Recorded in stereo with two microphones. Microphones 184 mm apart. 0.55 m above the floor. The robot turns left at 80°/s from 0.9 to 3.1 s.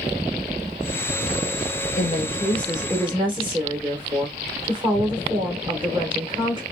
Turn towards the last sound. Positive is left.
turn(degrees=-30)